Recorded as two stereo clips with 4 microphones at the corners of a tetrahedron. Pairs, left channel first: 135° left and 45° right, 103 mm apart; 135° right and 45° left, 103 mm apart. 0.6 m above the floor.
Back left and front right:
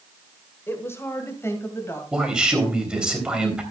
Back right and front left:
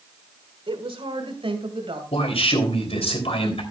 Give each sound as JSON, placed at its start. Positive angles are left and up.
{"t": 0.7, "sound": "a woman speaking", "azimuth_deg": 70, "distance_m": 1.8}
{"t": 2.1, "sound": "a man speaking", "azimuth_deg": -125, "distance_m": 3.5}